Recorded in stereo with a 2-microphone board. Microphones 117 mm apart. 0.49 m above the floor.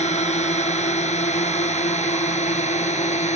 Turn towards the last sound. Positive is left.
turn(degrees=80)